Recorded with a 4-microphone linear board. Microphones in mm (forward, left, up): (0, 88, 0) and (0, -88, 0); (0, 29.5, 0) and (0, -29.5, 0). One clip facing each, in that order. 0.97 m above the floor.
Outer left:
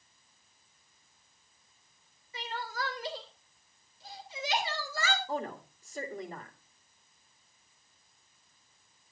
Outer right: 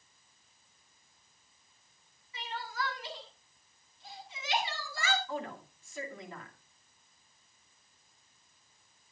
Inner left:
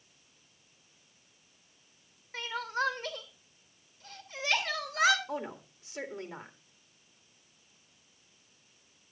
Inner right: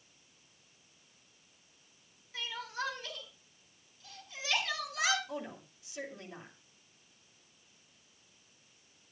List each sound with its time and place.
2.3 s crying: 40° left (ahead or behind), 2.5 m
5.3 s a woman speaking: 40° left (ahead or behind), 2.5 m